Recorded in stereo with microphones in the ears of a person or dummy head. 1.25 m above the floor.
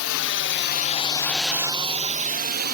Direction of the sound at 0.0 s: 65° left (ahead or behind).